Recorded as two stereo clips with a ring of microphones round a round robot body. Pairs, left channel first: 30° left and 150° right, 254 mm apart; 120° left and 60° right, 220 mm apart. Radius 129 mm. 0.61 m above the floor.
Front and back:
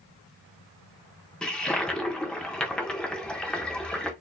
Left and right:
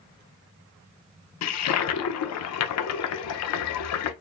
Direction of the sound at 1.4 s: 115° left.